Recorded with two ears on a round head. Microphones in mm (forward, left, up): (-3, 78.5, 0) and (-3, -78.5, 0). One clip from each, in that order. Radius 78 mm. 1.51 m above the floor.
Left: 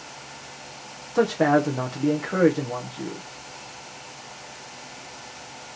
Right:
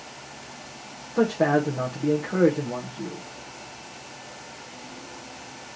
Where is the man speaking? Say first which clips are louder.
Left 2 dB; 75° left (ahead or behind), 0.7 m.